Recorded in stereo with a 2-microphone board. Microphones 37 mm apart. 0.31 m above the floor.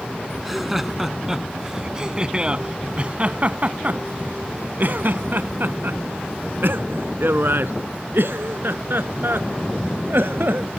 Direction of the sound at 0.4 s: 5° right (ahead or behind).